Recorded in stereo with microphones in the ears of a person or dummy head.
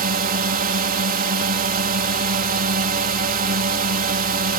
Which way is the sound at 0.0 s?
40° right (ahead or behind).